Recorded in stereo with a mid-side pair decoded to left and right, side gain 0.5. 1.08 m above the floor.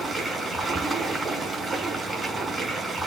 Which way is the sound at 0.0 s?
10° right.